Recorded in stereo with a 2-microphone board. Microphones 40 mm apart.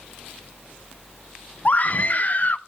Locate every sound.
1.6 s a scream: 40° left (ahead or behind), 0.7 m